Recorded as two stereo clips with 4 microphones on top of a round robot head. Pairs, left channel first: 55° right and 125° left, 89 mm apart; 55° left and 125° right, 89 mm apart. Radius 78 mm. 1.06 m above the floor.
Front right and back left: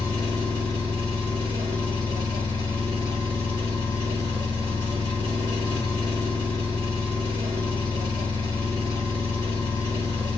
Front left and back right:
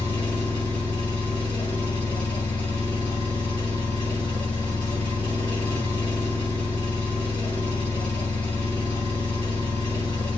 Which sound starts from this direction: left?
An engine running, at 0.0 s.